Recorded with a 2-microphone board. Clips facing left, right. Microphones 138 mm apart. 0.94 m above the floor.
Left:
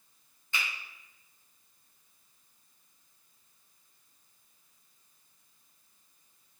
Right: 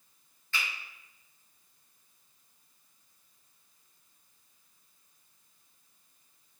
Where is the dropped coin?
I don't hear a dropped coin.